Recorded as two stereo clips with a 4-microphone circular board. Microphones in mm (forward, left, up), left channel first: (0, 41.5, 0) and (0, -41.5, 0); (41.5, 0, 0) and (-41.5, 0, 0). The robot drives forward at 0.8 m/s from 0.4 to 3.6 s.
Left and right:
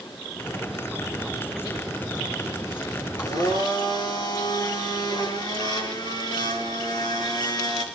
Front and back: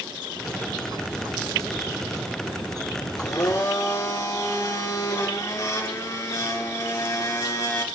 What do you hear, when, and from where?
3.2 s a blender: 50° left, 3.5 m; by 7.8 s 55° left, 3 m